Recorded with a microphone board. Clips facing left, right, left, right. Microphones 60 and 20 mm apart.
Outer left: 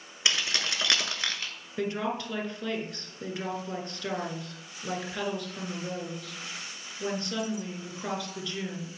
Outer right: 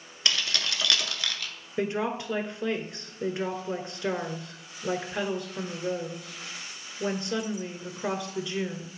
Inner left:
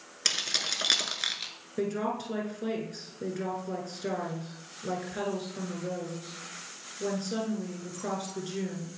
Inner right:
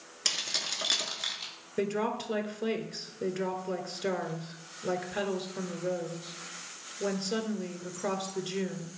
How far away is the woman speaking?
About 1.2 m.